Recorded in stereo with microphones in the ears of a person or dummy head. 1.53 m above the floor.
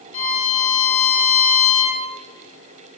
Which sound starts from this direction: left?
A violin, at 0.1 s.